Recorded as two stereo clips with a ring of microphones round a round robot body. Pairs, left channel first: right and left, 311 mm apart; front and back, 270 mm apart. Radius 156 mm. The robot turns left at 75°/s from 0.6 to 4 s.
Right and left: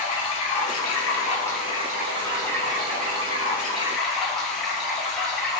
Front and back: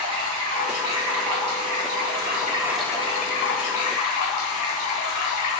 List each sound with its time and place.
0.0 s running water: 105° right, 2.5 m; by 5.6 s straight ahead, 2.5 m